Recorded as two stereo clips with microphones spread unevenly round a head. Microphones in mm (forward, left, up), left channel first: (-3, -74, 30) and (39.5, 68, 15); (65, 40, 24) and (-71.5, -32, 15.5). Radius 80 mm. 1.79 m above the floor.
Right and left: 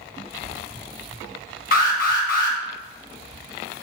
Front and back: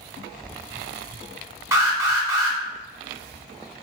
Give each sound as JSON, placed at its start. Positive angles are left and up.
{"t": 1.7, "sound": "an alarm", "azimuth_deg": -80, "distance_m": 0.6}